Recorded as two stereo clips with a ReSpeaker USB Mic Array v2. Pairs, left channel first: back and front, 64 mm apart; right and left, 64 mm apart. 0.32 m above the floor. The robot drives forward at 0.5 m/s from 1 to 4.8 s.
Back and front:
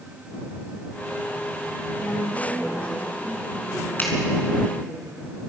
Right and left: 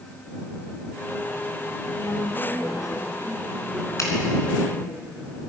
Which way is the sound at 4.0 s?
125° right.